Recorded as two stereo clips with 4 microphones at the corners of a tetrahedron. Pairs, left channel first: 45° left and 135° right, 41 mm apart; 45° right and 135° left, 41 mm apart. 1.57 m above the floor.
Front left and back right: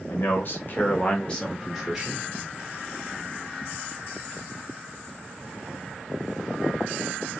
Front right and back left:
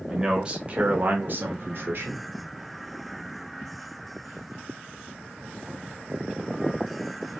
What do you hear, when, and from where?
0.1 s a man speaking: 60° left, 1.2 m; by 2.3 s 150° left, 1.1 m